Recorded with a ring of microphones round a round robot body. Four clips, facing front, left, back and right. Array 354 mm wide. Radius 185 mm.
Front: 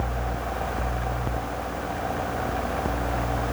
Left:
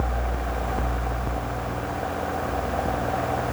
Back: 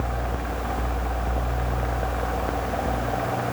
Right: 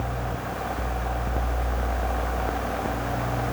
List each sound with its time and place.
Only background noise.